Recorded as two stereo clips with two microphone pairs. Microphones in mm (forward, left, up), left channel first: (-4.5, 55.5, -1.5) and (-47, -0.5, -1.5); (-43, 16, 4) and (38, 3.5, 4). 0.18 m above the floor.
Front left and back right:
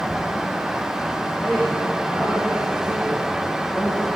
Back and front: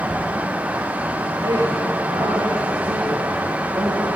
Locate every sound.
1.4 s a man speaking: 20° right, 9.5 m; by 4.1 s 5° left, 8.5 m